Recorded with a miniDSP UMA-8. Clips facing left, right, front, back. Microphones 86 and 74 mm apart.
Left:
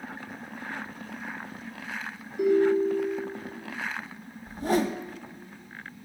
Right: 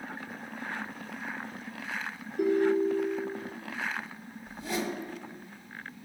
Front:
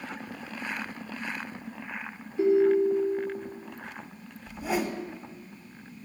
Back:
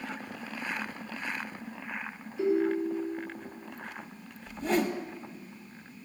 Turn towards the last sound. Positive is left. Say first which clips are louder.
# left 8 dB, back 1 dB
turn(degrees=80)